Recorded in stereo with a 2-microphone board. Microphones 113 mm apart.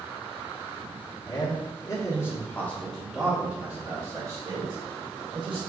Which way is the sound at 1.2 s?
45° left (ahead or behind).